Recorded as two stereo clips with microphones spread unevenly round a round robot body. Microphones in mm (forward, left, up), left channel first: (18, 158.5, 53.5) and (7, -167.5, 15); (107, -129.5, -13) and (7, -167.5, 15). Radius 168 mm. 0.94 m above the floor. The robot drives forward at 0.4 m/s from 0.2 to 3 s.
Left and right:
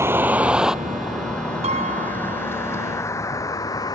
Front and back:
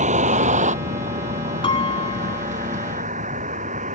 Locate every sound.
0.0 s a vehicle: 175° right; by 4.0 s 170° left
1.6 s a piano: 20° right